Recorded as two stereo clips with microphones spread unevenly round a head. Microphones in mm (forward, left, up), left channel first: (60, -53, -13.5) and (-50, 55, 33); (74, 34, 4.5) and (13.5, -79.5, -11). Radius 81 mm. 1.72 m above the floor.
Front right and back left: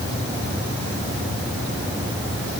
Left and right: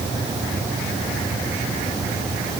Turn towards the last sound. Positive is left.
No sound to turn to.